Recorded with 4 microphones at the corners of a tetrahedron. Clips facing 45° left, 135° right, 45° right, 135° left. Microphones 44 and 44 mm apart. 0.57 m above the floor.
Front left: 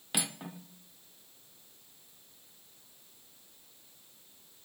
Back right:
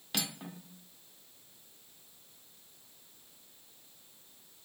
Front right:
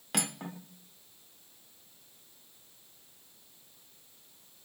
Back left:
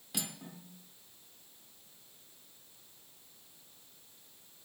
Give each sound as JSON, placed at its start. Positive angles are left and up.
{"t": 0.1, "sound": "cutlery clinking", "azimuth_deg": -30, "distance_m": 0.6}